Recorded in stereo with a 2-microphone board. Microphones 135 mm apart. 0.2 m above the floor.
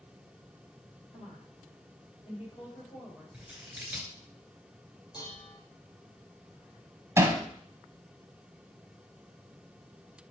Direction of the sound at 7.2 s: 20° right (ahead or behind).